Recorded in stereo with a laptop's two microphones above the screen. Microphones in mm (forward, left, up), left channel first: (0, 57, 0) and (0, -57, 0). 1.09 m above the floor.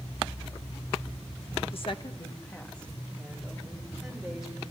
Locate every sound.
1.7 s a woman speaking: 60° left (ahead or behind), 0.9 m; by 4.6 s 5° right (ahead or behind), 4 m